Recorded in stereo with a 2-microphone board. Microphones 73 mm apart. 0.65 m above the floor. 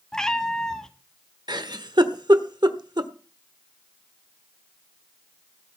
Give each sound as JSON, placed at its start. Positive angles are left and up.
{"t": 0.1, "sound": "a cat meowing", "side_deg": 5, "distance_m": 1.2}
{"t": 1.5, "sound": "a giggle", "side_deg": -75, "distance_m": 1.2}